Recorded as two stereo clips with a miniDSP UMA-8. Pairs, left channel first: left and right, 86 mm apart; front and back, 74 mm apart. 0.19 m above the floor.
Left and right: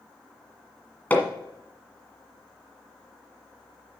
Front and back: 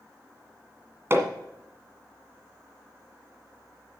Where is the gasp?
I don't hear a gasp.